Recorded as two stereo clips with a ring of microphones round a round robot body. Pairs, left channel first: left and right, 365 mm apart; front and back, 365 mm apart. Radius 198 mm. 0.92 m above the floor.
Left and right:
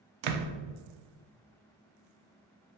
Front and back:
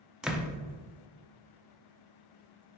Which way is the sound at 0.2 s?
90° right.